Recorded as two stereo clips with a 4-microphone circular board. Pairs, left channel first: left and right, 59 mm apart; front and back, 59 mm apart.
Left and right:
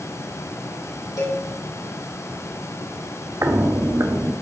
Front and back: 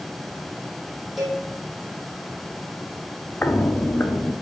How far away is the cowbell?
About 4 m.